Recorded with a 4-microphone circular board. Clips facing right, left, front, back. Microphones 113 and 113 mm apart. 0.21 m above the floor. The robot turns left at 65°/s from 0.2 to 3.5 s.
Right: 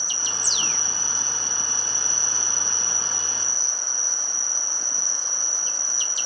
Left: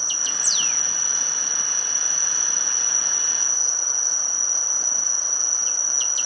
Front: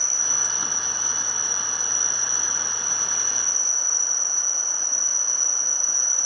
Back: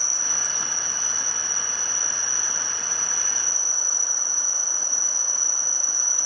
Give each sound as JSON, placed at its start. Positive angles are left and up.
{"t": 0.0, "sound": "an insect", "azimuth_deg": 20, "distance_m": 1.8}